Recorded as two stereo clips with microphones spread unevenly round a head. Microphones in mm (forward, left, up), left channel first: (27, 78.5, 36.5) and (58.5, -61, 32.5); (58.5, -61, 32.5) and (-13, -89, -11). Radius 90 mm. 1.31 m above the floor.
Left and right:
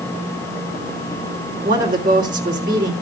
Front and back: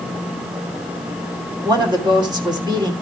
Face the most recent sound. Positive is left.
turn(degrees=-120)